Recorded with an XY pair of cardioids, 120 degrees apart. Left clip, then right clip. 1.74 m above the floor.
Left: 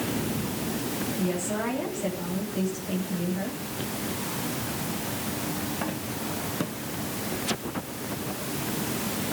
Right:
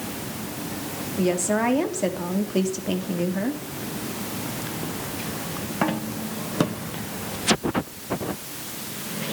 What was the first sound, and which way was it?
A woman speaking, 65° right.